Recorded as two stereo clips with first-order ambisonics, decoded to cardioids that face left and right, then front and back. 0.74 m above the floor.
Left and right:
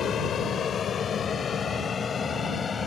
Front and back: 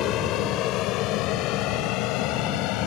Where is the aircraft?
35° left; by 2.9 s 20° left.